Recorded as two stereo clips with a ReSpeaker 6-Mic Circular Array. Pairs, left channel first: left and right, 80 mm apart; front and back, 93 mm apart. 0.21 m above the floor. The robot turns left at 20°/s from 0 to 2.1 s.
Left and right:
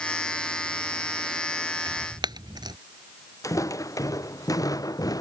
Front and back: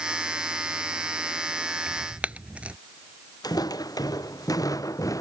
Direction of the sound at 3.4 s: 40° left.